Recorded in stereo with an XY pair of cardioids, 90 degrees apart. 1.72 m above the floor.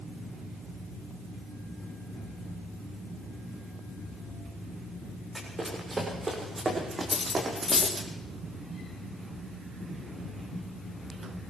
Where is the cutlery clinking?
30° left, 4 m.